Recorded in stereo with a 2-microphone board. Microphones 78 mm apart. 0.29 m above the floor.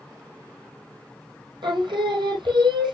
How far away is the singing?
About 1.5 m.